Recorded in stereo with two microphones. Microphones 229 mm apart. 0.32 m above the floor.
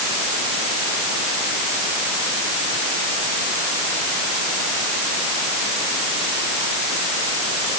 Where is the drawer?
No drawer in this recording.